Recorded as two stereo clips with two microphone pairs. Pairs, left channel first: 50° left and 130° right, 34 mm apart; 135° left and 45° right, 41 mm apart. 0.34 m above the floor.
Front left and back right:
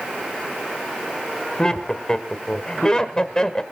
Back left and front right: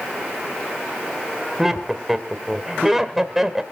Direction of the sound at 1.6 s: 25° left.